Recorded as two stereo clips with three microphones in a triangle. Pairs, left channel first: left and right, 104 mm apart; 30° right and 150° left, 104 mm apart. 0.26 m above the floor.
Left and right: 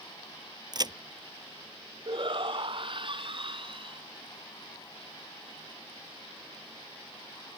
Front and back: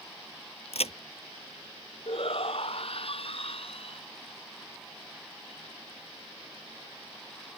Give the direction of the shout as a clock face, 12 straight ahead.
2 o'clock.